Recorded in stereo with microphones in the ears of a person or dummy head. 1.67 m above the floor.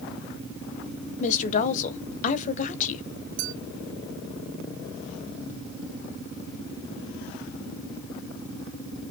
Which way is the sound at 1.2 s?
45° left (ahead or behind).